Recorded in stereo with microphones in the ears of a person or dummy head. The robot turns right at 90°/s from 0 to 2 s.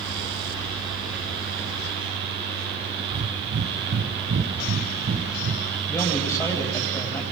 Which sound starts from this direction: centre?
A man speaking, at 5.9 s.